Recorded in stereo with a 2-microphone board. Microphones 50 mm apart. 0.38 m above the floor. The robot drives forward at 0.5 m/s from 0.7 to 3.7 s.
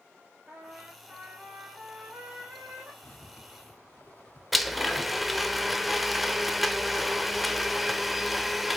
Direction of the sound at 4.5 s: Centre (ahead or behind).